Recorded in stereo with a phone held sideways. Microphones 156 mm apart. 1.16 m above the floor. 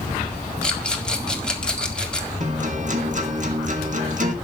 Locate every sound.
0.6 s a rattle: 5° left (ahead or behind), 1.8 m
2.4 s a guitar: 50° right (ahead or behind), 1.9 m